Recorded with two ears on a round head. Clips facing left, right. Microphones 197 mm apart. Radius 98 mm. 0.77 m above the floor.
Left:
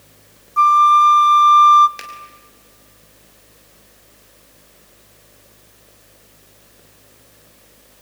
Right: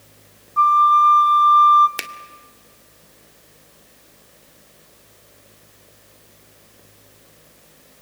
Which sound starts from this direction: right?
A finger snap, at 2.0 s.